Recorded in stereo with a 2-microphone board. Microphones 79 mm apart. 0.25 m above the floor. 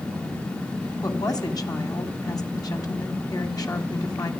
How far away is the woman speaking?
About 1.7 m.